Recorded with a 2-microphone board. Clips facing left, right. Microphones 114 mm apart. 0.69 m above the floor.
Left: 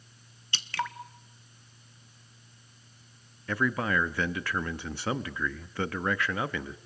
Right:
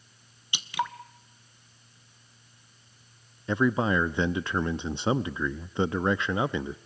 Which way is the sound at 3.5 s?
20° right (ahead or behind).